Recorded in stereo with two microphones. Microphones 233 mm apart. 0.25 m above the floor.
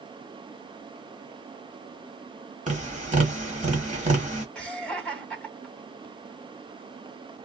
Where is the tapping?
30° right (ahead or behind), 1.3 m.